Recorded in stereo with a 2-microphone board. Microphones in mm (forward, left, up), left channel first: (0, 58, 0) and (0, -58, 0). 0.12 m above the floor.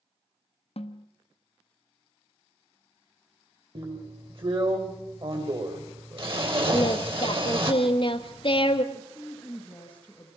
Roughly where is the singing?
Left.